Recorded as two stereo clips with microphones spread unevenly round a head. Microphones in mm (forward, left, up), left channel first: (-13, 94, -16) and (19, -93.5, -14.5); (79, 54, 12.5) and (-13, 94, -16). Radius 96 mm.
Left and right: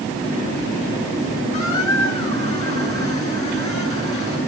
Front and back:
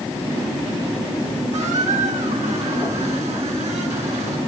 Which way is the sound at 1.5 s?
155° left.